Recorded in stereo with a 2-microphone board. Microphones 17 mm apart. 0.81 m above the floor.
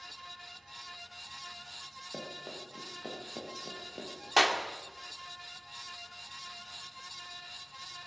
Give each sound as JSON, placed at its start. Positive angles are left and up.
{"t": 2.1, "sound": "running footsteps", "side_deg": -75, "distance_m": 7.0}
{"t": 4.4, "sound": "a clap", "side_deg": -5, "distance_m": 2.0}